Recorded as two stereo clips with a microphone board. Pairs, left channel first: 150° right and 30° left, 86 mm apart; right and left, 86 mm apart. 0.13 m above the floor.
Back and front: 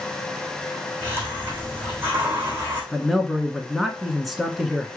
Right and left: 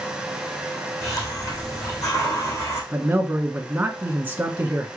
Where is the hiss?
35° right, 3 m.